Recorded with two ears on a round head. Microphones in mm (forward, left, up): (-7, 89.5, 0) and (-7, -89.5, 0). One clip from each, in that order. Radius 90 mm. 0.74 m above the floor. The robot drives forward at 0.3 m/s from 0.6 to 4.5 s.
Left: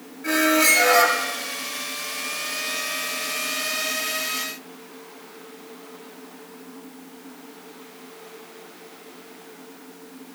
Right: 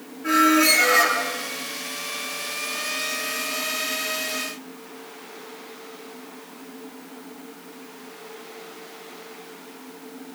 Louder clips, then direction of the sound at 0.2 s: Right 1 dB; 45° left (ahead or behind).